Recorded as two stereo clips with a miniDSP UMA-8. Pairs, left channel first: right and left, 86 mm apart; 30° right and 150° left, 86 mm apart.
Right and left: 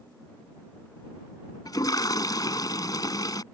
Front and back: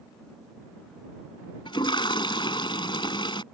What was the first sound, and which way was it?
A toilet flushing, 50° right.